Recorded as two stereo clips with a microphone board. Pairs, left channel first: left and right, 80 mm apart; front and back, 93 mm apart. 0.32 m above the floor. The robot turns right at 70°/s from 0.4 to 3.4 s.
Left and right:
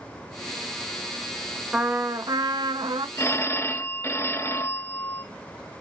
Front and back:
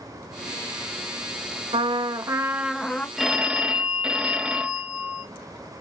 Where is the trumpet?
165° right, 0.8 m; by 3.1 s 70° right, 0.8 m.